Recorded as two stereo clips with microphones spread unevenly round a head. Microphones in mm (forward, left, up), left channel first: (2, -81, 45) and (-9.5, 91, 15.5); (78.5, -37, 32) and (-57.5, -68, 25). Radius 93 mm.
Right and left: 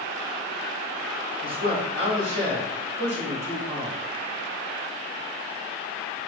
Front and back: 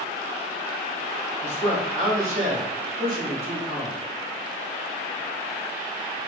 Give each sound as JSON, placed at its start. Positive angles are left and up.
{"t": 1.4, "sound": "a man speaking", "azimuth_deg": 150, "distance_m": 1.6}